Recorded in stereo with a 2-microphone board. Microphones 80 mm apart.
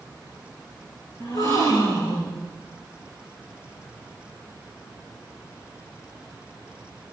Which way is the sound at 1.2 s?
50° left (ahead or behind).